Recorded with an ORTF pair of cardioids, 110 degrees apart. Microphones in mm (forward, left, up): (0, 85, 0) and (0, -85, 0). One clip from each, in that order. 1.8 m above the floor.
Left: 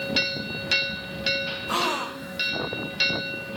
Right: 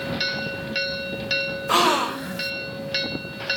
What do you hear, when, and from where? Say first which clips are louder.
1.7 s a gasp: right 8 dB; 30° right